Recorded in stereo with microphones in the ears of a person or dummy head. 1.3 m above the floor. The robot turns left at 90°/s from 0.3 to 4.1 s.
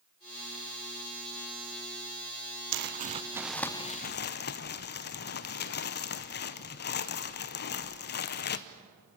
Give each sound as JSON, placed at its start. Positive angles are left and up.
{"t": 2.7, "sound": "crumpling", "azimuth_deg": -105, "distance_m": 0.7}